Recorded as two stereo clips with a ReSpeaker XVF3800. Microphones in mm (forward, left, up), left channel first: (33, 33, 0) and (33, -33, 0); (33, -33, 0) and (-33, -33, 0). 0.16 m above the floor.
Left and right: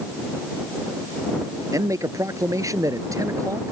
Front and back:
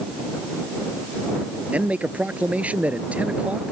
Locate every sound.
1.7 s a man speaking: 110° right